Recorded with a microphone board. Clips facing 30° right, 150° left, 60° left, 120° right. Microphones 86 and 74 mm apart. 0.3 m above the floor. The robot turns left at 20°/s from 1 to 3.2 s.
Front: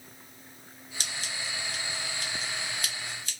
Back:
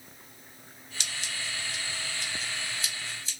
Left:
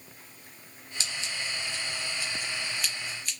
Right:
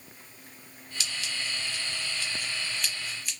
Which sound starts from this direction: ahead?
Scissors, at 1.0 s.